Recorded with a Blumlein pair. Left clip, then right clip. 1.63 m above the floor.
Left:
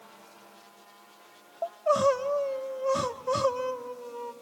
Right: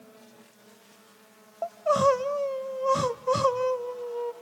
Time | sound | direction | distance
1.6 | crying | 10° right | 0.6 m